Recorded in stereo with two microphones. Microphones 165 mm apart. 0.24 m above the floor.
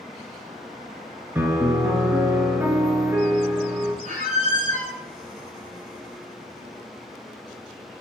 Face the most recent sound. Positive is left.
turn(degrees=-55)  # may be behind; listen again after turning